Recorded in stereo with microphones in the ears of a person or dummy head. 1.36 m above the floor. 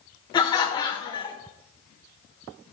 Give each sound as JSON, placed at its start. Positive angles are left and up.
{"t": 0.3, "sound": "laughter", "side_deg": 25, "distance_m": 0.5}